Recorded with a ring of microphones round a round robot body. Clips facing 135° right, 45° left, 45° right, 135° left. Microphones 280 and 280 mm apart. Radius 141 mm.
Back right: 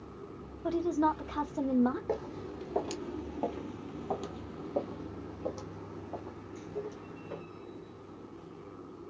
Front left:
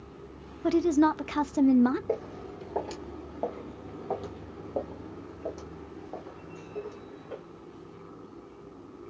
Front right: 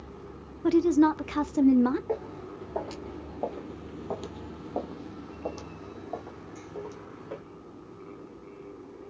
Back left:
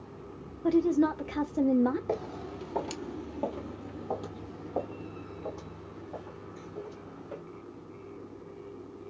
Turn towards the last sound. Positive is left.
turn(degrees=-55)